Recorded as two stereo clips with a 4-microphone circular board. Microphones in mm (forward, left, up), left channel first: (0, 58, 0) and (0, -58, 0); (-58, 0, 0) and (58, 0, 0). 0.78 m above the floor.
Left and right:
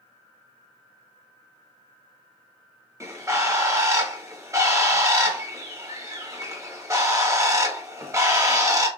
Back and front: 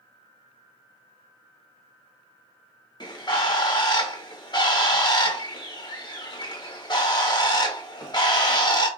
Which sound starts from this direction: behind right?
A bird, at 3.0 s.